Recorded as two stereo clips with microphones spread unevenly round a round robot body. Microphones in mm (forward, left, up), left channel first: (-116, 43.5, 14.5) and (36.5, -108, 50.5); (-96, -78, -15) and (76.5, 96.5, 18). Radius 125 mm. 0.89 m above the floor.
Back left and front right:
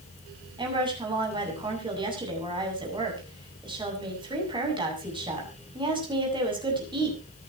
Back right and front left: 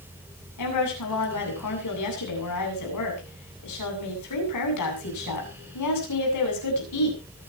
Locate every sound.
0.6 s a woman speaking: 115° right, 8 m